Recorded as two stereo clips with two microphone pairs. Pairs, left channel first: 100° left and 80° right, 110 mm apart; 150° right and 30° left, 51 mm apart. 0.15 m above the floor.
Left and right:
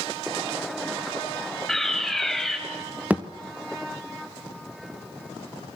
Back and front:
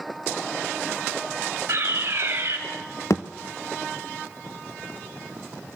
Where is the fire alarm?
10° left, 4.5 m.